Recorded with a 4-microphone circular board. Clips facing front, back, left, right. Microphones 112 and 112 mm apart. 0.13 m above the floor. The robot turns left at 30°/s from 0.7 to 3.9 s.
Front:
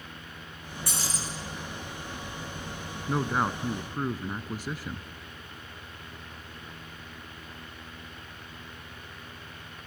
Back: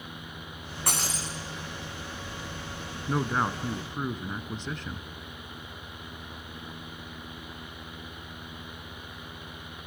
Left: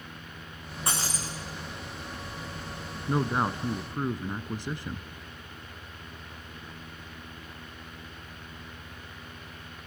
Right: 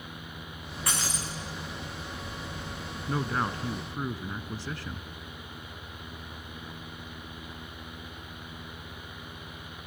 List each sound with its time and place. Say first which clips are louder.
0.9 s breaking glass: back 3 dB, left 1 dB; 150° left, 4.5 m; by 1.3 s 140° left, 4.5 m
3.1 s a man speaking: even, left 3 dB; 90° left, 1.1 m; by 5.1 s 65° left, 1.1 m